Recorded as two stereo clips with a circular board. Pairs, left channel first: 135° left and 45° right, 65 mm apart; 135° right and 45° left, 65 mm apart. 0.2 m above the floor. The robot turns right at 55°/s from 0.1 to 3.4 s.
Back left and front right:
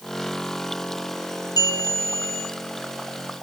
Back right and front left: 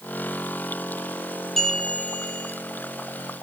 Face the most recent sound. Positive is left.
turn(degrees=-115)